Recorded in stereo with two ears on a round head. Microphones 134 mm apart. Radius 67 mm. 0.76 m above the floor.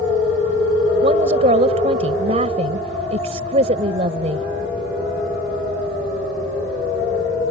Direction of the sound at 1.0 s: 45° right (ahead or behind).